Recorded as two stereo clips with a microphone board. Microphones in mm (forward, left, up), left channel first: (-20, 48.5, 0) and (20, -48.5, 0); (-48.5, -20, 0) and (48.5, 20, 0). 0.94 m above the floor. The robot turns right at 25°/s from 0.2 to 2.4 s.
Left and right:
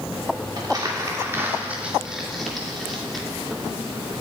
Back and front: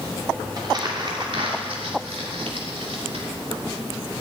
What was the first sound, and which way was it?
Crumpling, 20° right.